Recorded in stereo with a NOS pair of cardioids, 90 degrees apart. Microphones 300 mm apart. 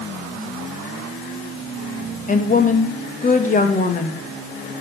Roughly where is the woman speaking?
Ahead left.